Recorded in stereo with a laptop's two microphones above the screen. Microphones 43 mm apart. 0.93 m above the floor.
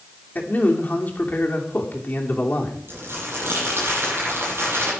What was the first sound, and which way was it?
A man speaking, 40° left (ahead or behind).